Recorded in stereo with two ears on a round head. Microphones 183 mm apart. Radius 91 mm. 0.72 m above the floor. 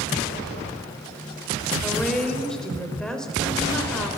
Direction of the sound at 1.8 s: 5° left (ahead or behind).